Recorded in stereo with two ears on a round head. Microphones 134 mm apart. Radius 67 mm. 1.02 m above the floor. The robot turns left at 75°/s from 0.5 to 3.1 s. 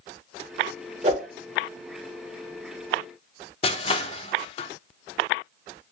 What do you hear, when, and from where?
1.0 s a whoosh: 45° right (ahead or behind), 1.2 m; by 1.3 s 55° right (ahead or behind), 1.2 m
3.6 s crushing: 40° left (ahead or behind), 0.6 m